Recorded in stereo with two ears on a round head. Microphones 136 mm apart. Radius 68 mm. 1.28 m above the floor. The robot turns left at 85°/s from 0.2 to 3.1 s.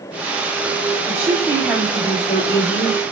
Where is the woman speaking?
125° right, 3 m; by 3.0 s 70° left, 3 m.